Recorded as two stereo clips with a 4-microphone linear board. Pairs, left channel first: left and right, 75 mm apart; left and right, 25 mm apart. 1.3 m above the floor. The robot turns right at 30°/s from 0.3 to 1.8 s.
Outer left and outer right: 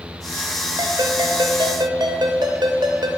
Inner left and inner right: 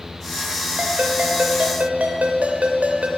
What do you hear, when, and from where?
0.8 s a ringtone: 105° right, 2 m; by 3.1 s 75° right, 2 m